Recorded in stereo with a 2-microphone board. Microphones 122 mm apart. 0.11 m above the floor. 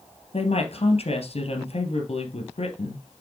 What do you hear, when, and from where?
0.3 s a woman speaking: 55° left (ahead or behind), 2.5 m